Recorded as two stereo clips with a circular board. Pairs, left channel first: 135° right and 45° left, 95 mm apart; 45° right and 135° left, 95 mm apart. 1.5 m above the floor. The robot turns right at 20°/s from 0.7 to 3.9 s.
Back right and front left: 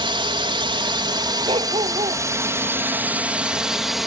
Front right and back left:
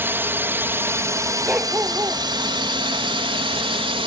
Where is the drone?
70° left; by 4.1 s 135° left.